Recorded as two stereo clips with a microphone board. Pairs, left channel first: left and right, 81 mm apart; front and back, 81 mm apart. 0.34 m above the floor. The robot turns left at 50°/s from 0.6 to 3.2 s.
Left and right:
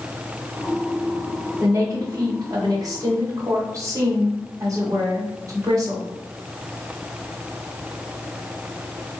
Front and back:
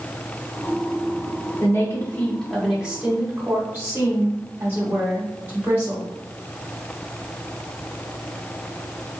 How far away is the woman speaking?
About 1.3 m.